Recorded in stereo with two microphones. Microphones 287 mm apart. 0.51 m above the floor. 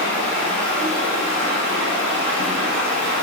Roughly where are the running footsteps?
I don't hear running footsteps.